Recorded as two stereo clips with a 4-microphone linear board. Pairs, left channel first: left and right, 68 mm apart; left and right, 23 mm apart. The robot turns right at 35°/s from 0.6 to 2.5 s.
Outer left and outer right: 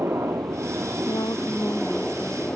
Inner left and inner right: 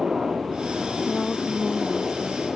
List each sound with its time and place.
0.0 s a helicopter: 40° right; by 2.6 s 25° left
1.1 s a woman speaking: 115° left; by 2.5 s 165° left